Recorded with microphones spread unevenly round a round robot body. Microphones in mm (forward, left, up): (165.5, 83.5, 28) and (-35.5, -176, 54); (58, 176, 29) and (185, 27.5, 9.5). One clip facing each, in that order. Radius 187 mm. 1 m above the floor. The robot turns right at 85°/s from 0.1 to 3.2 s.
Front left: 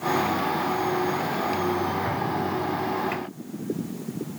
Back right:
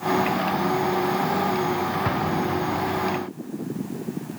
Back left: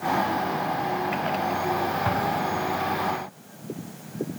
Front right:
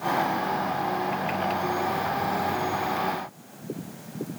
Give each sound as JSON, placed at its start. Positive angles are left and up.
{"t": 2.0, "sound": "an explosion", "azimuth_deg": 180, "distance_m": 1.4}